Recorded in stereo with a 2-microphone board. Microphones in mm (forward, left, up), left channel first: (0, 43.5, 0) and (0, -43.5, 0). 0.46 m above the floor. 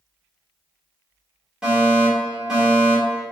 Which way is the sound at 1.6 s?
10° right (ahead or behind).